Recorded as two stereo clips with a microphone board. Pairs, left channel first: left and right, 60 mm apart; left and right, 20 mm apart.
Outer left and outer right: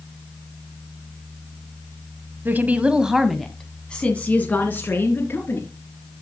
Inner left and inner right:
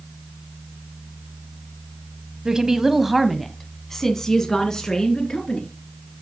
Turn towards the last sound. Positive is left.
turn(degrees=35)  # may be behind; listen again after turning